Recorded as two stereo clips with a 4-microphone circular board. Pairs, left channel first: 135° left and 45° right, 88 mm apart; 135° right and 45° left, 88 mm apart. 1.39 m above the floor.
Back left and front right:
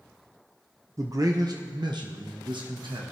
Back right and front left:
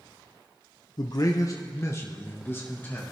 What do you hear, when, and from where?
1.0 s a man speaking: 100° right, 0.7 m; by 3.0 s 70° right, 1.6 m